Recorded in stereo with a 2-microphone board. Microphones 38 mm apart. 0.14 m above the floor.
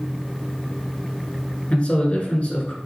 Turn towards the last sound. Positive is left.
turn(degrees=40)  # may be behind; listen again after turning